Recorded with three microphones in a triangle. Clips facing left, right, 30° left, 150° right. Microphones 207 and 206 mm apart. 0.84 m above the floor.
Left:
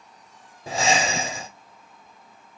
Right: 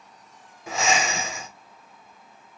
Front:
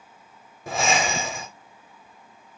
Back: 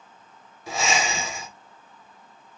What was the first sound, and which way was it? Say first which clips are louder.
Breathing: left 2 dB, front 2 dB; 45° left.